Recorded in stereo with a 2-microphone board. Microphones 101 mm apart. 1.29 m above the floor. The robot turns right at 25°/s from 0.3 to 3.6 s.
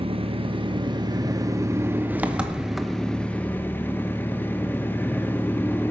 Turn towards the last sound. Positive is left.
turn(degrees=20)